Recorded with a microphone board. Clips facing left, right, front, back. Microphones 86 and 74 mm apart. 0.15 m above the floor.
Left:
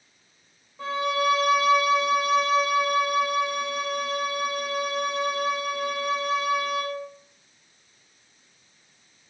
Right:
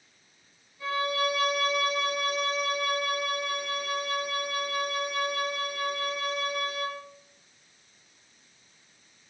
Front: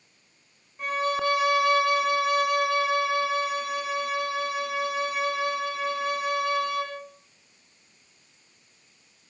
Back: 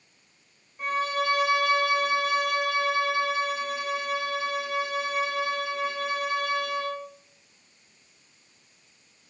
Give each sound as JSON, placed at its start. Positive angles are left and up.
{"t": 0.8, "sound": "a violin", "azimuth_deg": 85, "distance_m": 9.5}